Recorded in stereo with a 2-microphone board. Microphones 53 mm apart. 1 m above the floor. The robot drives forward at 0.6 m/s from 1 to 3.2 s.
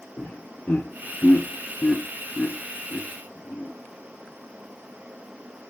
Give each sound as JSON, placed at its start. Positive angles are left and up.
{"t": 0.2, "sound": "laughter", "side_deg": 30, "distance_m": 1.0}